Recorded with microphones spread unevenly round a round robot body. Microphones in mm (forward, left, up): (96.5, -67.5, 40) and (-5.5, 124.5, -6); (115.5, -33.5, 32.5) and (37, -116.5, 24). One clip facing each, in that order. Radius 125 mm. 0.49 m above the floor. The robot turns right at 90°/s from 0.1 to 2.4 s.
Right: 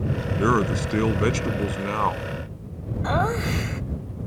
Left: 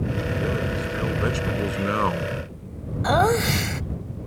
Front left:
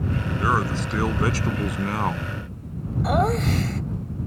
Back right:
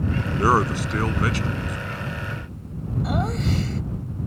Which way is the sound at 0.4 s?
90° right.